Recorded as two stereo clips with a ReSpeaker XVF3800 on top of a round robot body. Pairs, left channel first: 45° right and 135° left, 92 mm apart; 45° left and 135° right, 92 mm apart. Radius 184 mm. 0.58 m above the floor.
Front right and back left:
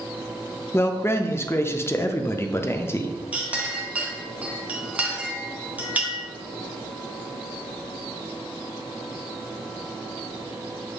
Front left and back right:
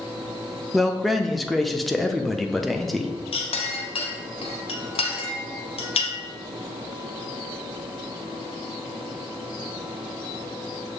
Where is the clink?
60° left, 0.7 m.